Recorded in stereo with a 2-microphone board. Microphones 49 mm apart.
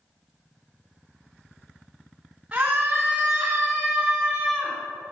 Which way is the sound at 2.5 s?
15° right (ahead or behind).